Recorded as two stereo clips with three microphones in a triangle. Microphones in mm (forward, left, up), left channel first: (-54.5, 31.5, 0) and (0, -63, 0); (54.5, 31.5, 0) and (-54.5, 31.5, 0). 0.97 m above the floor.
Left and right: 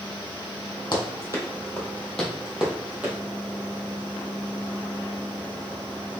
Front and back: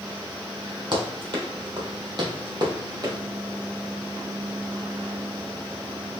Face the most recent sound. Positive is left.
turn(degrees=-130)